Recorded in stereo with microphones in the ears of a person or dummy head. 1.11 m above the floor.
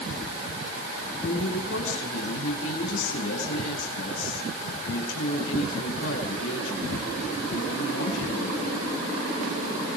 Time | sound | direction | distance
1.2 | a woman speaking | 75° left (ahead or behind) | 10 m